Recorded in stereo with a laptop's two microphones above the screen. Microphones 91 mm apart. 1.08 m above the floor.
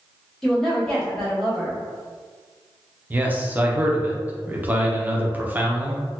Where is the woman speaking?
5° left (ahead or behind), 1.6 m.